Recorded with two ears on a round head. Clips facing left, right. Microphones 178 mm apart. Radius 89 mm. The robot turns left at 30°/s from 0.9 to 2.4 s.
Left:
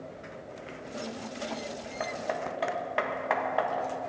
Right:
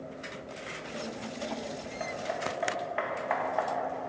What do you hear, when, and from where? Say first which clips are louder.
2.0 s hammering: left 2 dB; 65° left (ahead or behind), 1.5 m; by 3.9 s 50° left (ahead or behind), 1.5 m